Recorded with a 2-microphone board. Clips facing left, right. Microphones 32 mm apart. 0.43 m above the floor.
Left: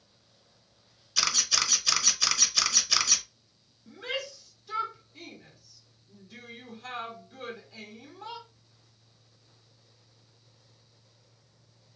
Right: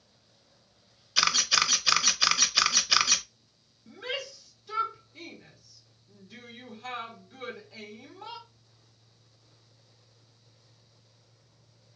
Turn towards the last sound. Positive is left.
turn(degrees=-5)  # may be behind; listen again after turning